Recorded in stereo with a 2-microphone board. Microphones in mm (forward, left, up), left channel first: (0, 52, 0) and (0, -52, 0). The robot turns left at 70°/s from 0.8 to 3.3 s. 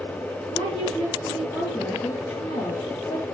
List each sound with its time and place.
0.5 s a woman speaking: 105° right, 3 m; by 3.2 s 80° left, 3 m